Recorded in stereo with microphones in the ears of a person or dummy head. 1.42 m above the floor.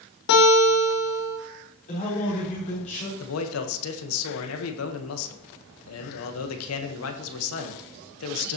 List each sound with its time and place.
0.3 s a guitar: 70° left (ahead or behind), 3 m
1.9 s a man speaking: 40° left (ahead or behind), 5 m
3.2 s a man speaking: 85° left, 1.4 m